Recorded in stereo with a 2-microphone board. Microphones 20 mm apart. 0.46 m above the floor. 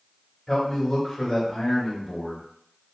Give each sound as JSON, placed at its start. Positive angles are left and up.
{"t": 0.5, "sound": "a man speaking", "side_deg": 25, "distance_m": 1.4}